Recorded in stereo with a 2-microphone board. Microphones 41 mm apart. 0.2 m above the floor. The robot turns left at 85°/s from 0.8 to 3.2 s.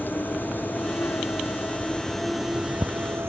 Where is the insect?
130° left; by 3.3 s 75° right.